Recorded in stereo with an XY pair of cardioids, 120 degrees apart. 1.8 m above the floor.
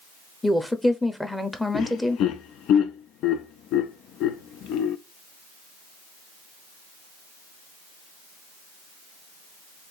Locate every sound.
0.4 s a woman speaking: 5° left, 0.9 m
1.7 s laughter: 70° left, 0.6 m